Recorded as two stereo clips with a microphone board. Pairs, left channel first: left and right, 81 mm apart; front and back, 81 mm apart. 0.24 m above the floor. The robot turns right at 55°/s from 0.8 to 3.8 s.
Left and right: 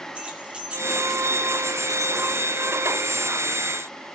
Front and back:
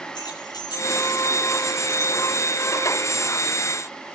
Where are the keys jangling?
15° right, 2 m; by 2.4 s 70° left, 2 m.